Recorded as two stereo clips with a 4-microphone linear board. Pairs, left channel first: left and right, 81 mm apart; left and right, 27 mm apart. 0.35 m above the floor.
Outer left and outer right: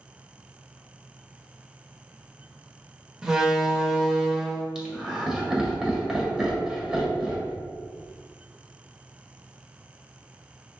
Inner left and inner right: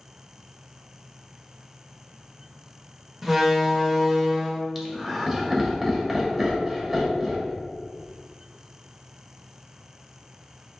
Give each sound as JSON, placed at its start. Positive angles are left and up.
{"t": 3.2, "sound": "a door slam", "side_deg": -10, "distance_m": 0.7}
{"t": 4.8, "sound": "laughter", "side_deg": -10, "distance_m": 1.3}